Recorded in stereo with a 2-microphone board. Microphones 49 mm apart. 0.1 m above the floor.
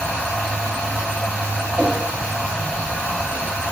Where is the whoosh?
25° left (ahead or behind), 1.7 m.